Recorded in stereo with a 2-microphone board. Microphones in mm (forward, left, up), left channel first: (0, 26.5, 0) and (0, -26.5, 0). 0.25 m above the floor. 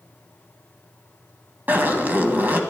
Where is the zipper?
35° right (ahead or behind), 1.8 m.